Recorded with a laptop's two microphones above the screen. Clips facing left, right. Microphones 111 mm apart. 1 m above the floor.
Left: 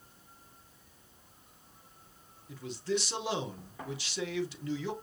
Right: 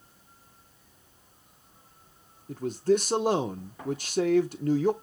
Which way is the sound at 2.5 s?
45° right (ahead or behind).